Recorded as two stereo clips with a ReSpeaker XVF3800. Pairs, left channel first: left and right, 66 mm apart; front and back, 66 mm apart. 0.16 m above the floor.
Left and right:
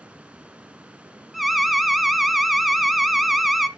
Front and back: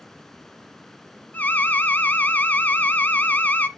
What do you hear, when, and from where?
1.3 s an alarm: 5° right, 0.9 m